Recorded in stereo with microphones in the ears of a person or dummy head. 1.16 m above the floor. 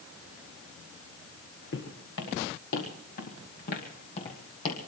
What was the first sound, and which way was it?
Footsteps, 65° left (ahead or behind).